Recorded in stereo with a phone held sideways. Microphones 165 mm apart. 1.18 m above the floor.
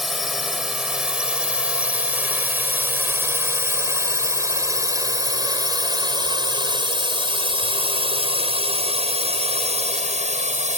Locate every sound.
0.0 s a drone: centre (ahead or behind); by 10.8 s 45° right (ahead or behind)